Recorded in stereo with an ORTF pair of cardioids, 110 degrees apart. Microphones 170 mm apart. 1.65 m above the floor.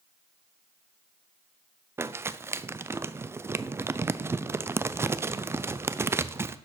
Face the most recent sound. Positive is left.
turn(degrees=-15)